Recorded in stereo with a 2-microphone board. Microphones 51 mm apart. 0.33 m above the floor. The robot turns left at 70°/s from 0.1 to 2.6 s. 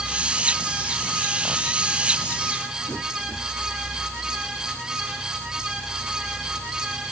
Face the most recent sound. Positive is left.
No sound to turn to.